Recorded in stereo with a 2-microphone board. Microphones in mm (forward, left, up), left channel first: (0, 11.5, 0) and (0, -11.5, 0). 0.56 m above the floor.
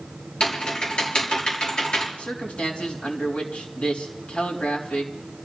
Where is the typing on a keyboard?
50° left (ahead or behind), 6 m.